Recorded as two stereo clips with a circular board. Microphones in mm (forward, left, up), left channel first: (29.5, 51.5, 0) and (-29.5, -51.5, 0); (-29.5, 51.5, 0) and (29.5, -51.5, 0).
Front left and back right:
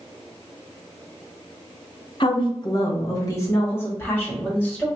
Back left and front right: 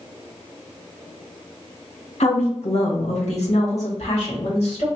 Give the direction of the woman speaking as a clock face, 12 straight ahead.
9 o'clock.